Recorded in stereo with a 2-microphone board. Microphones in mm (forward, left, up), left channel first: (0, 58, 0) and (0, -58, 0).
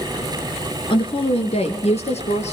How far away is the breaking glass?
I don't hear breaking glass.